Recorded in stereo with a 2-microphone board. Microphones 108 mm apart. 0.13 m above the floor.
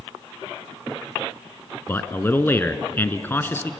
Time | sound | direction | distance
1.9 | a man speaking | 20° left (ahead or behind) | 1.2 m